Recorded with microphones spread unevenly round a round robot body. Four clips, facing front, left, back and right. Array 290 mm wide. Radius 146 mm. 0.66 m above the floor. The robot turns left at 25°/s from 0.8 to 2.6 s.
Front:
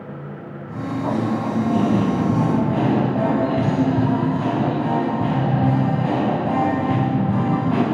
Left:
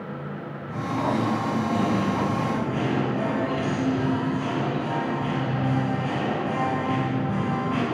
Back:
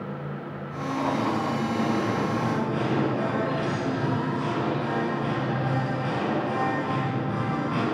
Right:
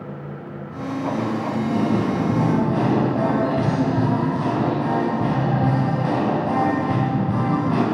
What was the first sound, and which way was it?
Singing, 20° left.